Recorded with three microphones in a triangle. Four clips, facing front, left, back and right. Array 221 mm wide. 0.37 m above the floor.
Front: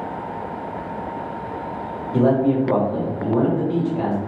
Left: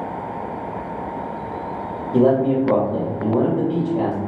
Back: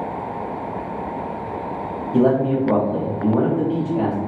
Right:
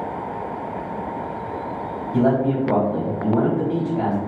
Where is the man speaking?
105° left, 1.6 m.